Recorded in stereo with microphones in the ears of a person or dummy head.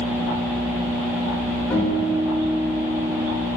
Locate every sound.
1.7 s a guitar: 10° left (ahead or behind), 0.8 m